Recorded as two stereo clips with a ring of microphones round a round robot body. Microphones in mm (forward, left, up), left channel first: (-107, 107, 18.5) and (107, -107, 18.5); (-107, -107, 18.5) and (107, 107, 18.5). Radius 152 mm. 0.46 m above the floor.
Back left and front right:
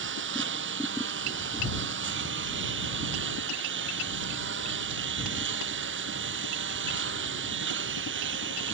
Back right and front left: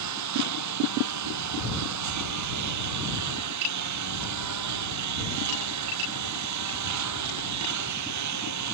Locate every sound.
0.0 s a lawn mower: 10° left